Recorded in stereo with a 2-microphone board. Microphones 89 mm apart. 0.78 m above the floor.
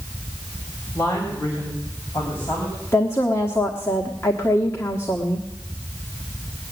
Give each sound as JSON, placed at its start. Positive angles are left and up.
{"t": 0.9, "sound": "a woman speaking", "side_deg": 35, "distance_m": 3.0}
{"t": 2.9, "sound": "a woman speaking", "side_deg": 30, "distance_m": 1.2}